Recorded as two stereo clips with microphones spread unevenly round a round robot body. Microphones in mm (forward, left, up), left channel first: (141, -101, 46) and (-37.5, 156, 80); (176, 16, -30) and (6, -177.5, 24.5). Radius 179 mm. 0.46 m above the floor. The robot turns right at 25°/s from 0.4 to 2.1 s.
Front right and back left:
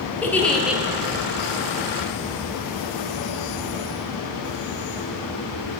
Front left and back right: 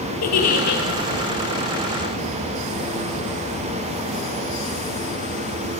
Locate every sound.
0.2 s a giggle: 30° left, 4 m; by 0.8 s 40° left, 4 m